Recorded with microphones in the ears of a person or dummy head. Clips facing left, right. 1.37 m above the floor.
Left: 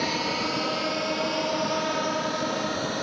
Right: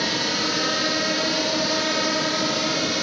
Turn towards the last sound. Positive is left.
turn(degrees=-35)  # may be behind; listen again after turning